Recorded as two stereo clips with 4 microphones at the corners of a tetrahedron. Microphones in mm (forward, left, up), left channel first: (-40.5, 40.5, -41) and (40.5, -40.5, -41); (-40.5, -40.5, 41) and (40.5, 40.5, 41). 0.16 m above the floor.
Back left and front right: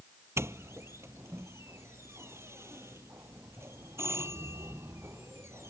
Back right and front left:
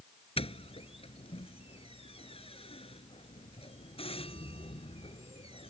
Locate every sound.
0.4 s a doorbell: 110° right